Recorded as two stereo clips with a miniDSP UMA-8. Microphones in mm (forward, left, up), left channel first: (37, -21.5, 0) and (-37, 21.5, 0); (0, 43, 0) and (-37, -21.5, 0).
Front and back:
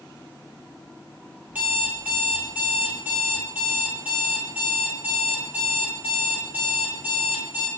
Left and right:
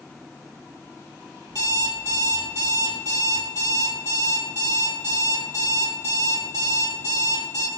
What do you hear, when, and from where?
1.5 s an alarm clock: 140° right, 2 m